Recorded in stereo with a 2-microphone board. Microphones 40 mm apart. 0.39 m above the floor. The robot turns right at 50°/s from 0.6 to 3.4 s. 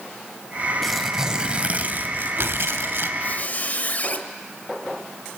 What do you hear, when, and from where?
0.8 s tearing paper: straight behind, 1.4 m; by 3.1 s 70° right, 1.4 m
3.2 s a squeak: 45° left (ahead or behind), 1.3 m; by 4.2 s 40° left (ahead or behind), 1.3 m